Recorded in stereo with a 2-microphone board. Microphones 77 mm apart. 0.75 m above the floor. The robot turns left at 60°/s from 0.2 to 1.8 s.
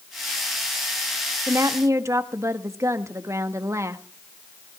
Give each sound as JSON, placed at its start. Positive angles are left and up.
{"t": 1.5, "sound": "a woman speaking", "side_deg": -40, "distance_m": 1.1}